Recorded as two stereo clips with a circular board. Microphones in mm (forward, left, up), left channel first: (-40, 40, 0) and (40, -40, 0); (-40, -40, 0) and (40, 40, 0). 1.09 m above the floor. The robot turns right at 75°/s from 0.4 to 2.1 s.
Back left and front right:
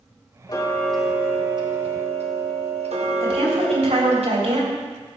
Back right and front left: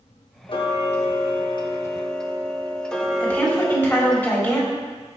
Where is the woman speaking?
65° right, 4 m.